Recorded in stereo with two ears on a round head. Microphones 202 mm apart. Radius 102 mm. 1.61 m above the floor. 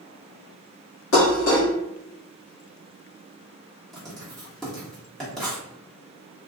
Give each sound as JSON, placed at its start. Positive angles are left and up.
{"t": 1.1, "sound": "dishes clattering", "side_deg": 65, "distance_m": 1.8}
{"t": 3.9, "sound": "writing", "side_deg": 0, "distance_m": 1.1}